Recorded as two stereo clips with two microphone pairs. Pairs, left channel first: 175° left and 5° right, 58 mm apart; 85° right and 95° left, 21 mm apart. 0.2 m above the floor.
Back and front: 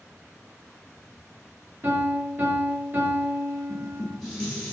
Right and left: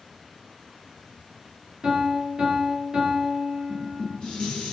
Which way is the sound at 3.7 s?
110° right.